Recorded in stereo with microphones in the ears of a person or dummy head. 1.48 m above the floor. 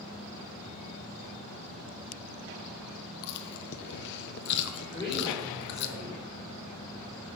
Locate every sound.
3.2 s chewing: 60° left (ahead or behind), 1.2 m
4.9 s a man speaking: 5° left (ahead or behind), 5.5 m